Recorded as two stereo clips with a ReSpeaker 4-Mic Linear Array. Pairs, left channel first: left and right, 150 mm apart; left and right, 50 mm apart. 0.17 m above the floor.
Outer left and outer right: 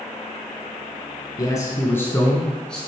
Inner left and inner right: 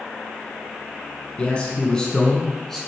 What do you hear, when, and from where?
1.4 s a man speaking: 25° left (ahead or behind), 1.3 m; by 2.8 s 5° left (ahead or behind), 1.7 m